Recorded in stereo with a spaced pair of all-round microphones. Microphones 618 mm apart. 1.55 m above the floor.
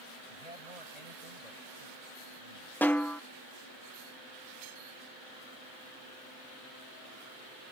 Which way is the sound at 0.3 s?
90° right.